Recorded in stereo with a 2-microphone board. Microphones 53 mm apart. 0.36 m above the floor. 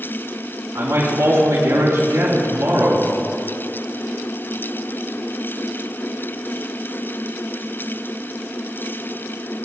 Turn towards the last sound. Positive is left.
turn(degrees=-75)  # may be behind; listen again after turning